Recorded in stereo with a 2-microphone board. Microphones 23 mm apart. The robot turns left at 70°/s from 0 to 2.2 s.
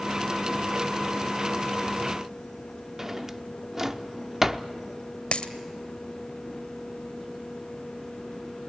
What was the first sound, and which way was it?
A drawer, 20° right (ahead or behind).